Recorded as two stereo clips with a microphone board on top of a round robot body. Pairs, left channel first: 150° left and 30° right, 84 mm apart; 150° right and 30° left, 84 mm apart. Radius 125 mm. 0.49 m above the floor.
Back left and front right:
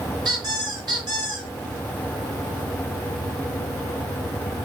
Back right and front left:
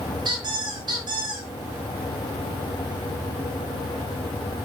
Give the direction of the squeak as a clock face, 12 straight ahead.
12 o'clock.